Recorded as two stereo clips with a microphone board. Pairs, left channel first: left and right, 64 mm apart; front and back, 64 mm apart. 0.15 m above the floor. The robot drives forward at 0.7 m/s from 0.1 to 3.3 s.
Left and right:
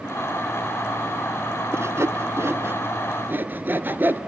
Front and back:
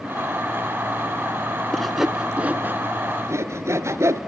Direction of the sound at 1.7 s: 80° right.